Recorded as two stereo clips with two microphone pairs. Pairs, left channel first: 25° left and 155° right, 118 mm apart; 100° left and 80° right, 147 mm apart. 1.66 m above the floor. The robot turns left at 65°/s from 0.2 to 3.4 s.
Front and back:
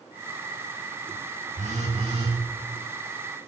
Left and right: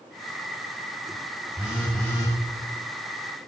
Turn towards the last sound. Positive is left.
turn(degrees=85)